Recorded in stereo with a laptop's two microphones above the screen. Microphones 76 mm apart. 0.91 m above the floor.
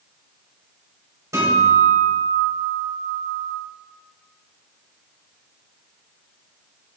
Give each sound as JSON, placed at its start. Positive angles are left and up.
{"t": 1.3, "sound": "a guitar", "side_deg": -45, "distance_m": 6.0}